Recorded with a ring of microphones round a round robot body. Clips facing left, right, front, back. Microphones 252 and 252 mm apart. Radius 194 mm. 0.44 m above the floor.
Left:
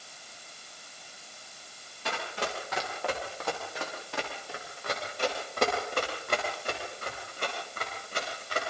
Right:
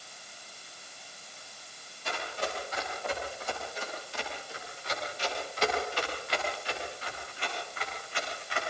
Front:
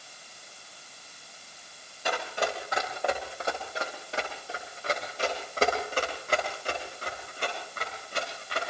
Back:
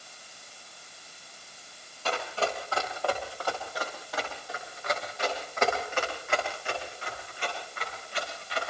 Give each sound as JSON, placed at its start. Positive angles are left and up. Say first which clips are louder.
{"t": 2.0, "sound": "running footsteps", "louder": "left 1 dB, even", "azimuth_deg": 75, "distance_m": 8.5}